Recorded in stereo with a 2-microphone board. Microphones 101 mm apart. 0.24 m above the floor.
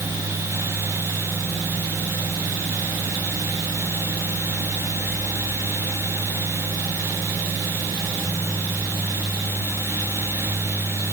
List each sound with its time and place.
Only background noise.